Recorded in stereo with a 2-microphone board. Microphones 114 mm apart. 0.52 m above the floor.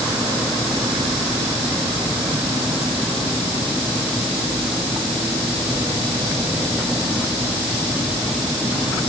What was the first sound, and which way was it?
Only background noise.